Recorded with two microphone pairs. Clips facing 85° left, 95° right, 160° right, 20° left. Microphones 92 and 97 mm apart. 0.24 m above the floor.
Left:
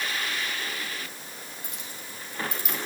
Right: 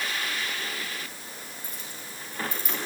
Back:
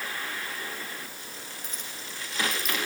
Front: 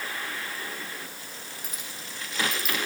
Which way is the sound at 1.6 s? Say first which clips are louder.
Even, even; 105° left.